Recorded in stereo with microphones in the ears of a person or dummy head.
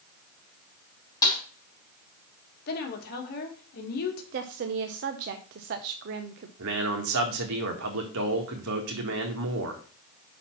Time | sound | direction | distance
1.2 | a snare drum | 20° left (ahead or behind) | 3.5 m
2.7 | a woman speaking | 55° left (ahead or behind) | 1.7 m
4.3 | a woman speaking | 45° right (ahead or behind) | 0.5 m
6.6 | a man speaking | 70° right (ahead or behind) | 1.6 m